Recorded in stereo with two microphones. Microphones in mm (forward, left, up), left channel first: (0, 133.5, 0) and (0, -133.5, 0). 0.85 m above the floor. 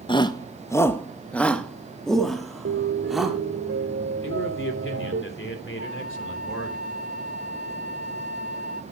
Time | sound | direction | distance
0.1 | a shout | 20° left (ahead or behind) | 0.6 m
2.6 | a piano | 50° right (ahead or behind) | 1.6 m
4.2 | a man speaking | 50° left (ahead or behind) | 3 m
5.8 | a flute | 65° left (ahead or behind) | 1.9 m